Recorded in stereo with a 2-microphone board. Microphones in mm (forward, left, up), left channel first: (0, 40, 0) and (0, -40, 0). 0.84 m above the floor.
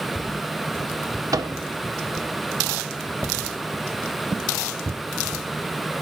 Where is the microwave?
55° right (ahead or behind), 1.6 m.